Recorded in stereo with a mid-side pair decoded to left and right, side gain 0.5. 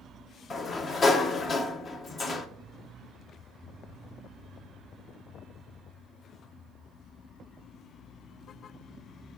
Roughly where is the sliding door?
Ahead left.